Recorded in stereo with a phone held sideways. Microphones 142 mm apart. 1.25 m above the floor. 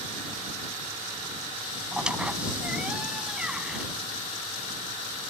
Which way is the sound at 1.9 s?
5° right (ahead or behind).